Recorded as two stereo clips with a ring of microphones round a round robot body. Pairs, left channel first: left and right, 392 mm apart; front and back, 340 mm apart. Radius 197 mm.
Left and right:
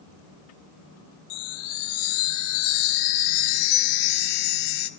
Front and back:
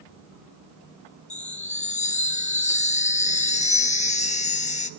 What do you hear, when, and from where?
1.3 s a chime: 70° left, 0.8 m